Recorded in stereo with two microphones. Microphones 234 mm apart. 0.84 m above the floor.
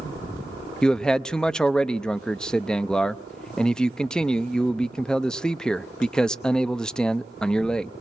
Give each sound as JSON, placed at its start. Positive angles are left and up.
{"t": 0.8, "sound": "a man speaking", "side_deg": 5, "distance_m": 0.6}